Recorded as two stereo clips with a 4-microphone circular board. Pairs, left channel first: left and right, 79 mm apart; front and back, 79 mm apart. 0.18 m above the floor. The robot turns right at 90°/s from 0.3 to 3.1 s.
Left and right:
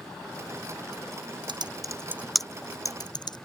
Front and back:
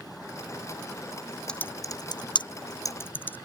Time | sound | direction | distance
1.5 | typing on a keyboard | 80° right | ?